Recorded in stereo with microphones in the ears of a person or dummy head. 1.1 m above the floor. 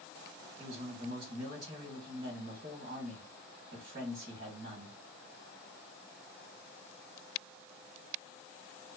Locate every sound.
0.6 s a man speaking: 40° right (ahead or behind), 1.3 m